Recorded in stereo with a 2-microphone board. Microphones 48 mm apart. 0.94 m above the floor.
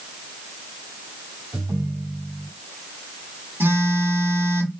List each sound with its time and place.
1.5 s a ringtone: 65° right (ahead or behind), 2 m
3.6 s a phone buzzing: 55° right (ahead or behind), 3 m